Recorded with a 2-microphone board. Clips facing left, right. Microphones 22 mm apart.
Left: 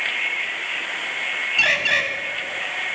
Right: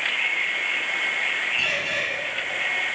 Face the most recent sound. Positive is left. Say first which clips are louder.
# left 6 dB
turn(degrees=65)  # may be behind; listen again after turning